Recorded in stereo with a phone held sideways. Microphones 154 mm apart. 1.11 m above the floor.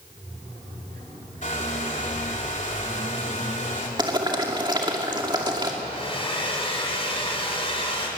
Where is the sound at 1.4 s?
55° left (ahead or behind), 3 m.